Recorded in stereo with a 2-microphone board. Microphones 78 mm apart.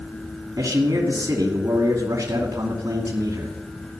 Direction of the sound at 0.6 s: 50° right (ahead or behind).